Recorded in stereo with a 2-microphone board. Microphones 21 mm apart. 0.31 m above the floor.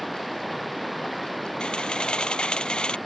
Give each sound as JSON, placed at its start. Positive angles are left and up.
{"t": 0.0, "sound": "running water", "side_deg": 0}
{"t": 1.6, "sound": "a camera shutter", "side_deg": 50}